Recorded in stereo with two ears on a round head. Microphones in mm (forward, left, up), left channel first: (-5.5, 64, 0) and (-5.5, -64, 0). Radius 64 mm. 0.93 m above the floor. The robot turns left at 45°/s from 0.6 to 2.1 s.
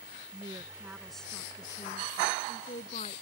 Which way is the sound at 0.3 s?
160° right.